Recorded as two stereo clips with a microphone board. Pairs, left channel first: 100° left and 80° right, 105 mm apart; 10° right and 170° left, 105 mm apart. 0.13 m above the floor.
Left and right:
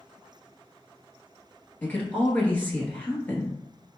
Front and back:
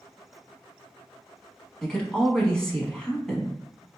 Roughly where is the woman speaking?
Ahead left.